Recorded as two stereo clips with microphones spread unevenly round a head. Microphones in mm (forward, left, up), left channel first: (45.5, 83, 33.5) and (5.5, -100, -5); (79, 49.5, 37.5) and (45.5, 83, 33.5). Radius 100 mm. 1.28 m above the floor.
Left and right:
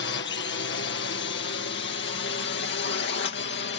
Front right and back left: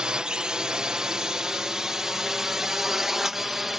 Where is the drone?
75° left; by 3.8 s 55° left.